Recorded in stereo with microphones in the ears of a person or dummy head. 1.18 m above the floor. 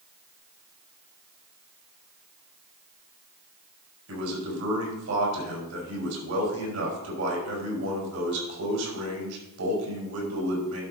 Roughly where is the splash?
I don't hear a splash.